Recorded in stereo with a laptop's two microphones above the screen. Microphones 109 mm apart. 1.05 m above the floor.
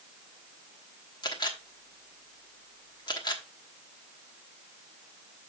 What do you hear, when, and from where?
1.2 s a camera shutter: 40° left (ahead or behind), 1.2 m